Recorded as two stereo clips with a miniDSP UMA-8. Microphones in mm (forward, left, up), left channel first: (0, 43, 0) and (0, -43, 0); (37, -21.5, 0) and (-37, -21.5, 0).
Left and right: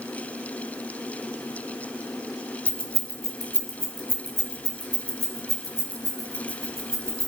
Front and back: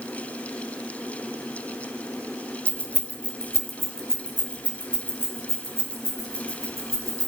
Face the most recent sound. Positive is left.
turn(degrees=40)